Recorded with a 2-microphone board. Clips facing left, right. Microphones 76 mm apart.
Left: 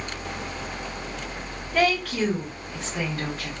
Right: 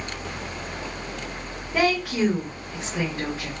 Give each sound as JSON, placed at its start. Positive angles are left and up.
{"t": 1.7, "sound": "a woman speaking", "side_deg": -15, "distance_m": 1.8}